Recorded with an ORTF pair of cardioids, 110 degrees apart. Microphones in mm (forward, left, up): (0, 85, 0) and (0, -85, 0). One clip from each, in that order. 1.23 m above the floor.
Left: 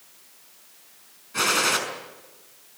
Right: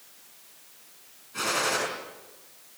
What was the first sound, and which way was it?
A gunshot, 40° left.